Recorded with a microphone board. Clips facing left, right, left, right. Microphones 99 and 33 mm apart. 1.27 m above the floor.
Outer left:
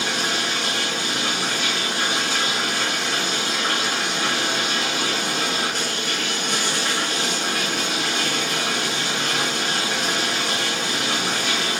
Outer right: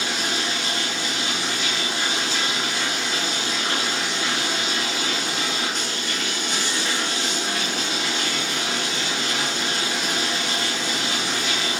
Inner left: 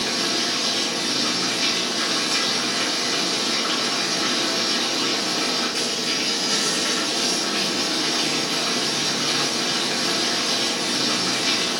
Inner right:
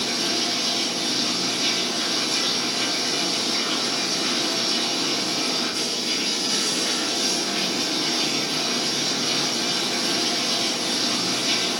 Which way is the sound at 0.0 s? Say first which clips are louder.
Outer left 2 dB, inner left 1 dB; 50° left (ahead or behind).